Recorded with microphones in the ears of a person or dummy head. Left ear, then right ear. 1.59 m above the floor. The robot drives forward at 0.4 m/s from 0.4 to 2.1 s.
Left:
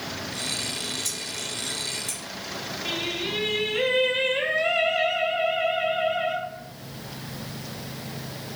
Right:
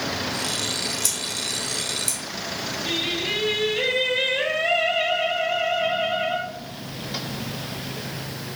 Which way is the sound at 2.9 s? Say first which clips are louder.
Right 3 dB; 45° left (ahead or behind).